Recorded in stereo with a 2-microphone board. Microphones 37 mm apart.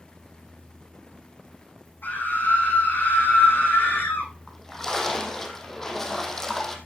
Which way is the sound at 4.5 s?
15° left (ahead or behind).